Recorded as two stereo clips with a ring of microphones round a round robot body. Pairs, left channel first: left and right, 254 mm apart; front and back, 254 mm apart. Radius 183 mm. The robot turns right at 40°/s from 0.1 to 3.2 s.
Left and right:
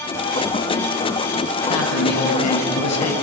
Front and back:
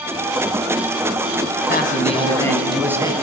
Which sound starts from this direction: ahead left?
A man speaking, at 1.7 s.